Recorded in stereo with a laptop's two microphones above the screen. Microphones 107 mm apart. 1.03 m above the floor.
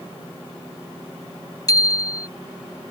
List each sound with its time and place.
1.7 s a bicycle bell: 35° left (ahead or behind)